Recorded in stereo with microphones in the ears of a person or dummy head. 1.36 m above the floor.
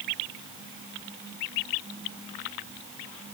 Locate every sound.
Only background noise.